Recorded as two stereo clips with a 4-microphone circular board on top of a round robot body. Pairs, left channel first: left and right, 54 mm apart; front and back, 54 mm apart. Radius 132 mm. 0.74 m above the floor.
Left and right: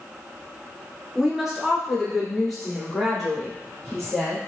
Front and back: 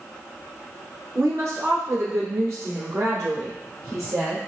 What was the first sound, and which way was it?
A woman speaking, 165° right.